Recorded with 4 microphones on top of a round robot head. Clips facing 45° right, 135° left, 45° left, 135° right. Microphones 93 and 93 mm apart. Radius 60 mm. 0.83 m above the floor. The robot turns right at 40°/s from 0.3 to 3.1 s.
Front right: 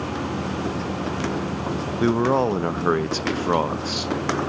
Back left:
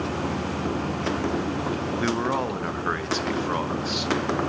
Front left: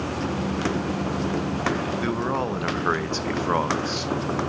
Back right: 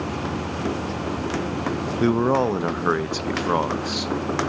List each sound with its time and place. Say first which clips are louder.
2.0 s a man speaking: front right 8 dB, back right 6 dB; 105° right, 0.6 m; by 4.1 s 60° right, 0.6 m